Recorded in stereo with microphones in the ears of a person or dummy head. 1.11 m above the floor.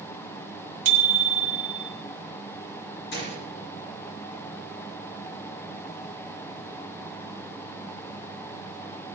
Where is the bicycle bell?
30° right (ahead or behind), 2.5 m.